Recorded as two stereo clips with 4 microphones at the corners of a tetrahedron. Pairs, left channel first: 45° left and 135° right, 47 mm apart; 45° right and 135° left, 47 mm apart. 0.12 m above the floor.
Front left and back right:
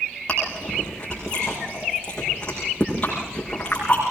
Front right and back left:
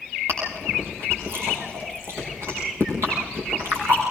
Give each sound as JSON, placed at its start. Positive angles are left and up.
{"t": 0.3, "sound": "chewing", "azimuth_deg": 115, "distance_m": 7.5}